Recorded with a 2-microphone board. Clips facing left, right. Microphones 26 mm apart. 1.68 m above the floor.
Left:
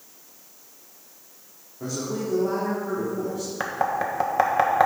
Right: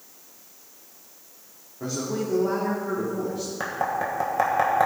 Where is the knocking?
25° left (ahead or behind), 1.6 m.